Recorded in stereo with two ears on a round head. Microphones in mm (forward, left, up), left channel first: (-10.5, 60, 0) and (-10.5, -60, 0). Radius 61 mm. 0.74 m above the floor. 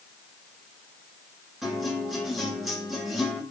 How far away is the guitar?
About 5.5 m.